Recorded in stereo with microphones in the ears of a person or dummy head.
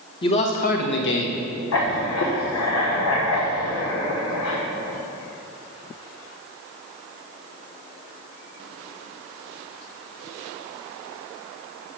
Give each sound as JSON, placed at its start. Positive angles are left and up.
{"t": 0.2, "sound": "a man speaking", "side_deg": 25, "distance_m": 1.3}
{"t": 1.7, "sound": "writing", "side_deg": 80, "distance_m": 1.5}